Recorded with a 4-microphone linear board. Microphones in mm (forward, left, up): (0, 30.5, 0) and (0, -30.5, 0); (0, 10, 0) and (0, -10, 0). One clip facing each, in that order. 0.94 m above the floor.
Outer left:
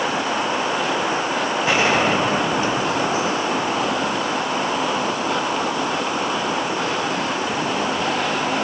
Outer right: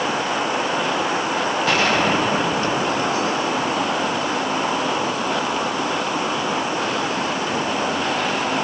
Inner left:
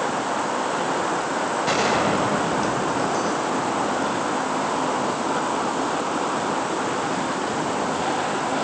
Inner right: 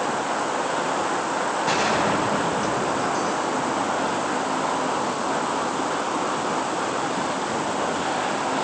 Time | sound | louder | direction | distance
1.7 | a gunshot | outer left 1 dB, inner left 1 dB | 20° left (ahead or behind) | 6 m